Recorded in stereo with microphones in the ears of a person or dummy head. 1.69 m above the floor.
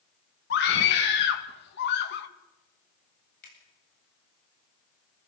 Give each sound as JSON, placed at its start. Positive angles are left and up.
{"t": 0.5, "sound": "a scream", "side_deg": 60, "distance_m": 2.0}
{"t": 3.4, "sound": "a finger snap", "side_deg": 55, "distance_m": 8.0}